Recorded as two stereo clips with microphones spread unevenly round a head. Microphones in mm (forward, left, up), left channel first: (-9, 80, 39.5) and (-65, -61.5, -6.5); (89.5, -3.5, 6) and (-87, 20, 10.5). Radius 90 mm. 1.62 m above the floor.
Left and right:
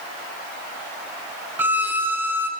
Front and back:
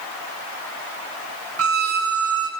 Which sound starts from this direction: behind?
A violin, at 1.6 s.